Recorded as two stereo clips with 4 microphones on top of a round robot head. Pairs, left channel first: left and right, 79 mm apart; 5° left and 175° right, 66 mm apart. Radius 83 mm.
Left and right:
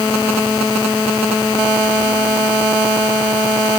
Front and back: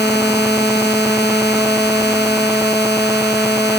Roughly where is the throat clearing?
I don't hear throat clearing.